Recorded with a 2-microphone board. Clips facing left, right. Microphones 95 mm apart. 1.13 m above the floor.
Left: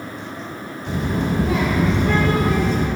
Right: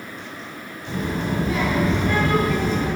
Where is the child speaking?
75° left (ahead or behind), 2.5 m.